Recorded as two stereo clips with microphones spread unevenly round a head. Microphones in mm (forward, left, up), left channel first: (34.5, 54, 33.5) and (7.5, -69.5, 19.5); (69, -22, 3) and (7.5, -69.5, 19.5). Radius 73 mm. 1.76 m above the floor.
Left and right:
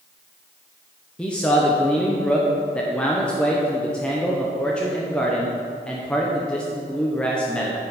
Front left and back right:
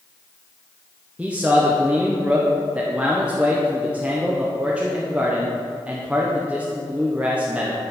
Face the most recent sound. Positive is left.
turn(degrees=155)